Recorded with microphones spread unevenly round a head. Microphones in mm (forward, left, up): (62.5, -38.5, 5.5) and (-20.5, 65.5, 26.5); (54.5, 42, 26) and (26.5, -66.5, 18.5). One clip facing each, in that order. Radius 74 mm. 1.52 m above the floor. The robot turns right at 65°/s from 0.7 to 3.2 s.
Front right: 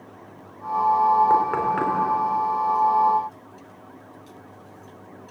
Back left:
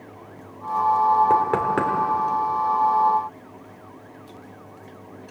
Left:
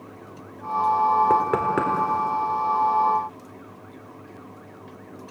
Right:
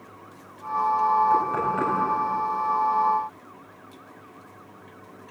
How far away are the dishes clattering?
No dishes clattering in this recording.